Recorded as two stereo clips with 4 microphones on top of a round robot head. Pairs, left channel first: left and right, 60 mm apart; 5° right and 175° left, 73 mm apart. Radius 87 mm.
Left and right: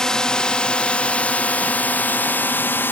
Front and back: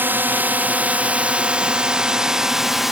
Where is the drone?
155° left; by 2.9 s 90° left.